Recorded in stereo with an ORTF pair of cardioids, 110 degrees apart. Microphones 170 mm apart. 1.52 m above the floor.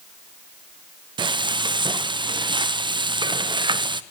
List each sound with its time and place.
1.2 s frying: 30° right, 0.8 m